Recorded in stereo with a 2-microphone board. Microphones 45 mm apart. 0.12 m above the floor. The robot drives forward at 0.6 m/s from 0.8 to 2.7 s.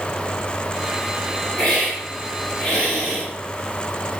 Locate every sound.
1.6 s a hiss: 30° left (ahead or behind), 2.0 m; by 3.2 s 25° left (ahead or behind), 2.5 m